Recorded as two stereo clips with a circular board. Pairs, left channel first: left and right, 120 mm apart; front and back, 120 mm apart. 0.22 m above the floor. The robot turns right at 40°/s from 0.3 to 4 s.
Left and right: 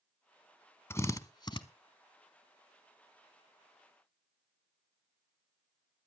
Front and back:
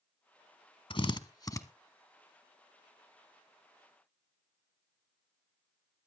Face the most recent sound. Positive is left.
turn(degrees=150)